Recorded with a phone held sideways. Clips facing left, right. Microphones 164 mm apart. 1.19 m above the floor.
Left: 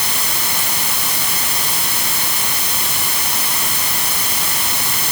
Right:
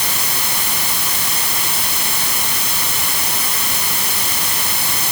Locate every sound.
Only background noise.